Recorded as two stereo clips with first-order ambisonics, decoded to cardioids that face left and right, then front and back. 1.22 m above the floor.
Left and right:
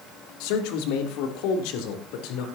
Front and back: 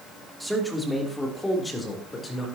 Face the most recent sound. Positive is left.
turn(degrees=75)